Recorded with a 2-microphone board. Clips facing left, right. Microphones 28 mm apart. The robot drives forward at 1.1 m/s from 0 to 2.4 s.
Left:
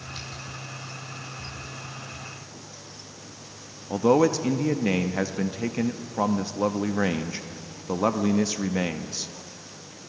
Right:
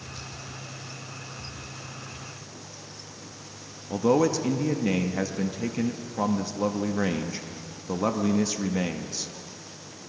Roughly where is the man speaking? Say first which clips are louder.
Left 2 dB; centre.